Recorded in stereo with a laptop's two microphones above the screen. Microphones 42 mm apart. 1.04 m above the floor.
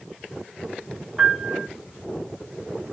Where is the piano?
15° right (ahead or behind), 1.0 m.